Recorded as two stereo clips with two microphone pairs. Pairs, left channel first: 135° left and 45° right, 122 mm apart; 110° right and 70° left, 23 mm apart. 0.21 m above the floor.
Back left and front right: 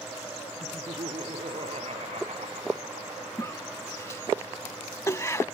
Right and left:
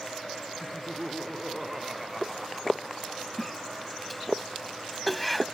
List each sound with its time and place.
0.6 s laughter: 5° right; by 3.4 s 10° right
3.4 s a cough: 165° left